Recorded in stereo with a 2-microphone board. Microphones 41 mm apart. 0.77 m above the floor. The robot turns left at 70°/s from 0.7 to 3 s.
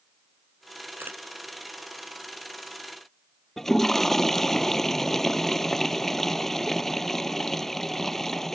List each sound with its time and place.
1.0 s a camera shutter: 65° right (ahead or behind); by 1.2 s 50° right (ahead or behind)
3.6 s a toilet flushing: 10° left (ahead or behind)